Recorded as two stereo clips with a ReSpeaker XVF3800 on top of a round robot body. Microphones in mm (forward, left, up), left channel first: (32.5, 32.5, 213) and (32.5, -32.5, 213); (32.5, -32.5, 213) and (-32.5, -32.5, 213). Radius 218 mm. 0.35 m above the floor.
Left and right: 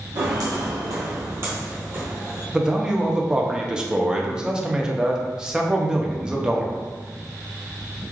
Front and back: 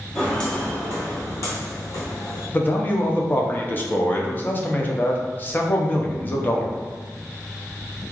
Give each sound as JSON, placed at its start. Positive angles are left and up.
{"t": 0.1, "sound": "footsteps", "azimuth_deg": -80, "distance_m": 1.0}
{"t": 2.5, "sound": "a man speaking", "azimuth_deg": -20, "distance_m": 0.8}